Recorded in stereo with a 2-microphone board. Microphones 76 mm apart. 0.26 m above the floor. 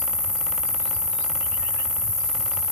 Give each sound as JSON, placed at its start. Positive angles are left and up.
{"t": 0.0, "sound": "an insect", "side_deg": 25, "distance_m": 3.0}